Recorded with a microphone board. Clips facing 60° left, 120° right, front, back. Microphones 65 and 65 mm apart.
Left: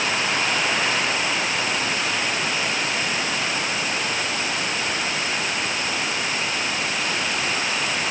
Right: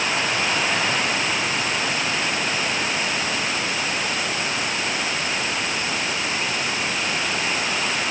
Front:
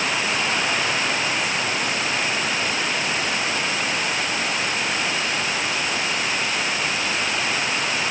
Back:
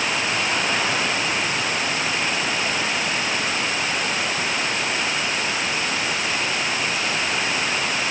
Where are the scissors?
I don't hear scissors.